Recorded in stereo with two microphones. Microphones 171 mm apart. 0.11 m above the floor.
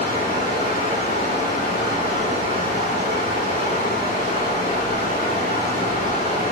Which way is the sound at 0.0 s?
55° left (ahead or behind).